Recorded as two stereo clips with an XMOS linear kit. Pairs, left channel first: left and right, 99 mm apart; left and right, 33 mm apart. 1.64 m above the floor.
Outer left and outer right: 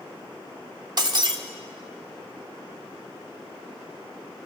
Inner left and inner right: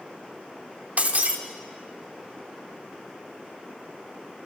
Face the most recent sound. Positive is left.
turn(degrees=-50)  # may be behind; listen again after turning